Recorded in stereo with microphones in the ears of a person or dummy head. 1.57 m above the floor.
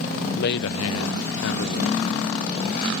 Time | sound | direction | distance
0.3 | a man speaking | 55° left (ahead or behind) | ?